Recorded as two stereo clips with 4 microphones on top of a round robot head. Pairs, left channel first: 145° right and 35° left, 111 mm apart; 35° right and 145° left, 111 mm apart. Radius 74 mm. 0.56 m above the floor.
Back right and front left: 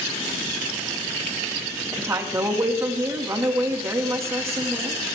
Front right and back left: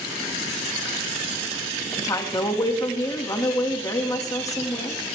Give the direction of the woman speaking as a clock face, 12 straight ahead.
12 o'clock.